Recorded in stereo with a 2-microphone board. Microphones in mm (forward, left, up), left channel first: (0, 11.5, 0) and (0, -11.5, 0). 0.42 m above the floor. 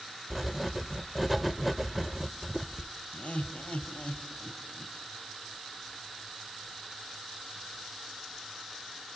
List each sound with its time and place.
0.3 s writing: 5° right (ahead or behind), 0.8 m
3.1 s laughter: 75° left (ahead or behind), 2.5 m